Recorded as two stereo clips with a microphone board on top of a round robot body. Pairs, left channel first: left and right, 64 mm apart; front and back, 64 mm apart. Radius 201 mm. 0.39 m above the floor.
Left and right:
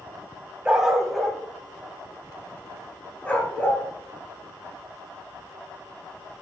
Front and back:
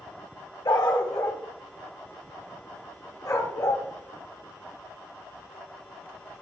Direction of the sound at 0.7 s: 15° right.